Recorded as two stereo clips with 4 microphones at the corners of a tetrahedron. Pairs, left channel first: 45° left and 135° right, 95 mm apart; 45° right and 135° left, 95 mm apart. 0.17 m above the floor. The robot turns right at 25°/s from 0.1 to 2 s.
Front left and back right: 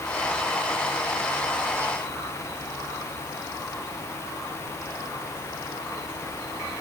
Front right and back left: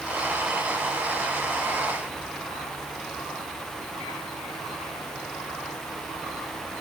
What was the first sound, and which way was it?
Only background noise.